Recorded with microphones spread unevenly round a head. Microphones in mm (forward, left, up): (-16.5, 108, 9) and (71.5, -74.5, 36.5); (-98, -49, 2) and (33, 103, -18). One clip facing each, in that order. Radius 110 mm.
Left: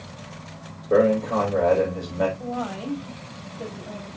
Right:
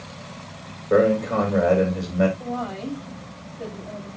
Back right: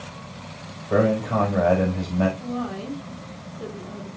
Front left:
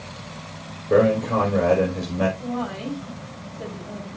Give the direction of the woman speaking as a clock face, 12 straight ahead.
11 o'clock.